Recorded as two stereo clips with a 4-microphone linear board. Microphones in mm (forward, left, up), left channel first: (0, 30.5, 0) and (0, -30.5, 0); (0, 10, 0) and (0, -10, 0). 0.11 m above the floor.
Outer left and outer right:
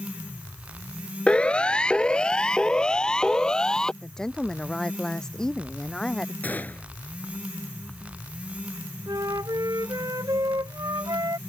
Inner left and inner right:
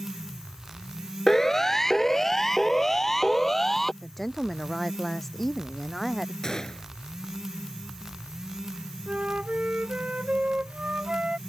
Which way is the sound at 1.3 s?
20° left (ahead or behind).